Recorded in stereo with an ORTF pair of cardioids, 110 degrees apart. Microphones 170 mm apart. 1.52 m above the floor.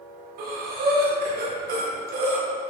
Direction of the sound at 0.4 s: 60° right.